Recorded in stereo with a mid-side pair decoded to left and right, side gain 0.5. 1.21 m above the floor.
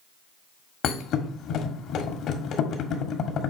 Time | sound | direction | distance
0.8 | a thud | 65° left | 1.5 m